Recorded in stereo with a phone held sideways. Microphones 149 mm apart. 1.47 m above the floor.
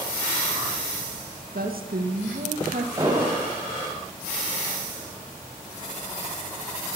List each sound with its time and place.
1.5 s a woman speaking: 85° right, 1.9 m; by 2.9 s 70° right (ahead or behind), 1.5 m
3.0 s an explosion: 30° right (ahead or behind), 5 m